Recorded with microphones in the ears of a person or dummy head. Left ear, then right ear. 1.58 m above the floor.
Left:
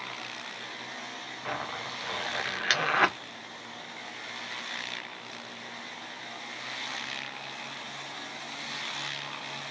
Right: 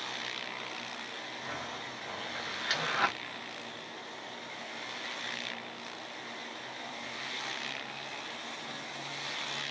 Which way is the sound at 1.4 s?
35° left (ahead or behind).